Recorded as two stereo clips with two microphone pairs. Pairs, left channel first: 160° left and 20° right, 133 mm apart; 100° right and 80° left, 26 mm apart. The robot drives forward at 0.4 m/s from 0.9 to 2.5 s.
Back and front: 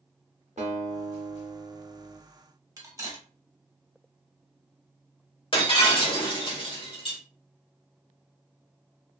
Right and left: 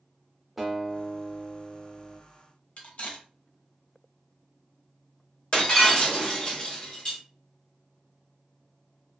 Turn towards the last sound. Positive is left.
turn(degrees=-155)